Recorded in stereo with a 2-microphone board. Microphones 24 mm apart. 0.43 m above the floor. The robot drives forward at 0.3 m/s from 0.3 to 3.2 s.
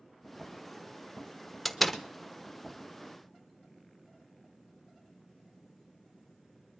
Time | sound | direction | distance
1.6 | a door slam | 5° left (ahead or behind) | 0.7 m